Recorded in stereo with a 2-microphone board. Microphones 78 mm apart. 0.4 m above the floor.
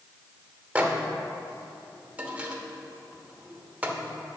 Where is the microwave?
15° right (ahead or behind), 0.9 m.